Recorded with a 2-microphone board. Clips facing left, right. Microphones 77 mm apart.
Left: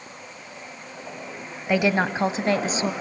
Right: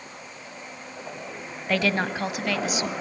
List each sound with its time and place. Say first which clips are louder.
1.7 s a woman speaking: left 3 dB; 15° left (ahead or behind), 0.9 m; by 2.9 s 35° left (ahead or behind), 1.4 m